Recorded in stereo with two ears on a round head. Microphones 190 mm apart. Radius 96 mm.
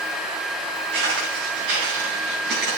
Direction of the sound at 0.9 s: 55° right (ahead or behind).